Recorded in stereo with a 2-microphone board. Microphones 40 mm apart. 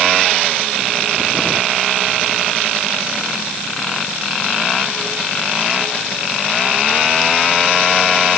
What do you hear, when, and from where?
Only background noise.